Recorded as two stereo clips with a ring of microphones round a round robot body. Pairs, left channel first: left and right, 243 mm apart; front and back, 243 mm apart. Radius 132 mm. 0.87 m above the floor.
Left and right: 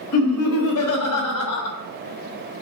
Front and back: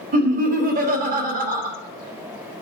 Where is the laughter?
125° left, 1.4 m.